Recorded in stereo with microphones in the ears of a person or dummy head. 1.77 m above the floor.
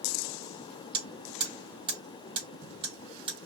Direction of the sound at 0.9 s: 30° right (ahead or behind).